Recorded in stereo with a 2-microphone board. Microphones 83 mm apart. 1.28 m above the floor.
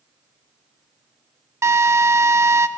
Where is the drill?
35° right (ahead or behind), 0.9 m.